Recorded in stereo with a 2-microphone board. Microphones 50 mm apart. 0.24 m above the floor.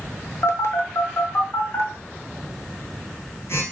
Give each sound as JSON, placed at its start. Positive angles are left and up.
{"t": 0.4, "sound": "a phone buzzing", "side_deg": 70, "distance_m": 0.7}